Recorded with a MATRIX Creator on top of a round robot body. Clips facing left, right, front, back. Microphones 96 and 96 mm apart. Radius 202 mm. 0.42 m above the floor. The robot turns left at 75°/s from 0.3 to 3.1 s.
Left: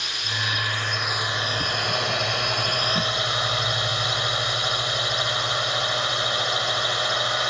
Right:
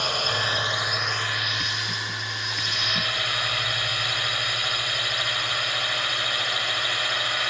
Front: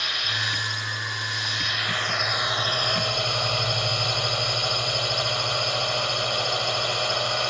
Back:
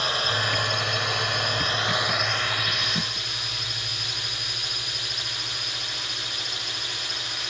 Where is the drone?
125° right; by 7.5 s 25° left.